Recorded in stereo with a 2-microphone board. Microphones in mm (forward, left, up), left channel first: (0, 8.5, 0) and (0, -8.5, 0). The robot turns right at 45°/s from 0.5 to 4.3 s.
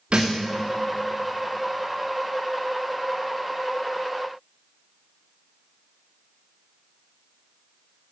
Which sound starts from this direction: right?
A thud, at 0.1 s.